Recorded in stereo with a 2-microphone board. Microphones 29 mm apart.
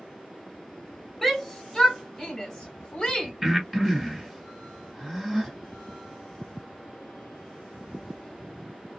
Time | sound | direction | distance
1.2 | a shout | 10° left (ahead or behind) | 1.9 m
3.4 | breathing | centre (ahead or behind) | 1.9 m